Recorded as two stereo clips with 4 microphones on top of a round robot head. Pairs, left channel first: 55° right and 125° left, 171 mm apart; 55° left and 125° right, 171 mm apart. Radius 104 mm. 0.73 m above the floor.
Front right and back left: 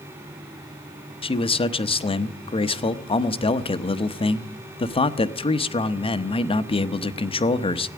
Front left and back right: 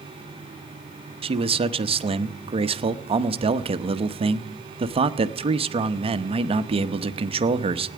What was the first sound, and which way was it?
A man speaking, 90° right.